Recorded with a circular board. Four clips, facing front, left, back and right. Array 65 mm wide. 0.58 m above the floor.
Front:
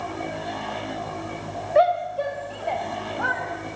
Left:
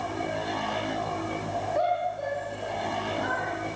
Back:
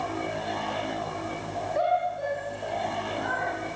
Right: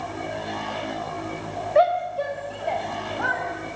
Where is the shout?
45° right, 3 m; by 3.4 s 40° right, 4 m.